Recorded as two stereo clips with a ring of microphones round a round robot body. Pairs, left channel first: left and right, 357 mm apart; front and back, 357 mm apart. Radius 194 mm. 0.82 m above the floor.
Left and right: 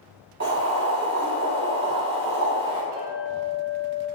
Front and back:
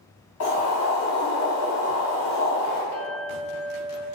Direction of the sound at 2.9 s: 125° right.